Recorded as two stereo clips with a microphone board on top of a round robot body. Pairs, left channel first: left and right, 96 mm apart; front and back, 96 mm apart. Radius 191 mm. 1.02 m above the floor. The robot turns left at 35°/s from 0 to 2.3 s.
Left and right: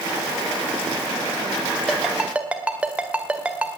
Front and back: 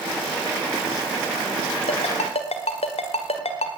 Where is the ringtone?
5° left, 1.7 m; by 3.8 s 10° right, 1.7 m.